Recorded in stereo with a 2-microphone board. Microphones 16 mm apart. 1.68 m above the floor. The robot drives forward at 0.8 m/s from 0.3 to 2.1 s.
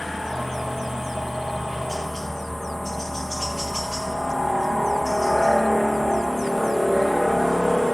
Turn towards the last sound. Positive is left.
turn(degrees=35)  # may be behind; listen again after turning